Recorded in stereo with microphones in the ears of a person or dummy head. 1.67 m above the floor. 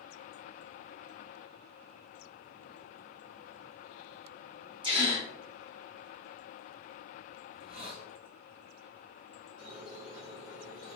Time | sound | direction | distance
4.8 | a gasp | 25° right (ahead or behind) | 1.0 m
7.5 | a hiss | 60° right (ahead or behind) | 2 m
9.6 | a squeak | 70° right (ahead or behind) | 2 m